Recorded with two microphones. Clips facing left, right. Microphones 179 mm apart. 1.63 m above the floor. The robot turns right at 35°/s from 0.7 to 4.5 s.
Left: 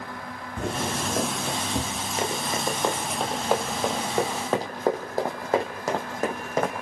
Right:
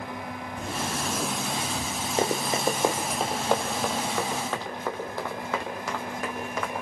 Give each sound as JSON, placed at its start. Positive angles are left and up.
{"t": 0.6, "sound": "footsteps", "side_deg": 60, "distance_m": 3.5}
{"t": 2.2, "sound": "running footsteps", "side_deg": -30, "distance_m": 2.5}